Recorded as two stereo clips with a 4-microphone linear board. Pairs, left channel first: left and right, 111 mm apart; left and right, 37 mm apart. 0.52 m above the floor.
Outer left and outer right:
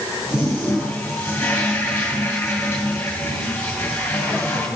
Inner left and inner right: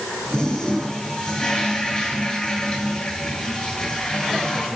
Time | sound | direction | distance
0.3 | a toilet flushing | 20° left (ahead or behind) | 8 m